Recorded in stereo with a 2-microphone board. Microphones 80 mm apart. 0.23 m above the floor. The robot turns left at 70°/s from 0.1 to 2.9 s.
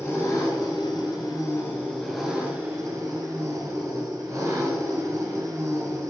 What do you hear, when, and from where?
0.0 s an engine running: 145° left, 2.5 m; by 6.1 s 50° right, 2.5 m